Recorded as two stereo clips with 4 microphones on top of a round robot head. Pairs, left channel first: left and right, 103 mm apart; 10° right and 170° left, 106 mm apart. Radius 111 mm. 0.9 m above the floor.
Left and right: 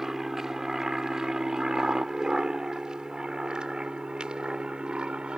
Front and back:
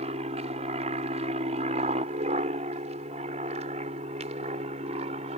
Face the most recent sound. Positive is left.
turn(degrees=-170)